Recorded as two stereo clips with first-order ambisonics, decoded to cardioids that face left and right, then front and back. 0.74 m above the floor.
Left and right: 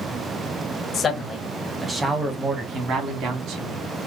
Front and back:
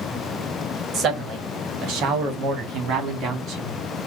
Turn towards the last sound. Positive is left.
turn(degrees=-130)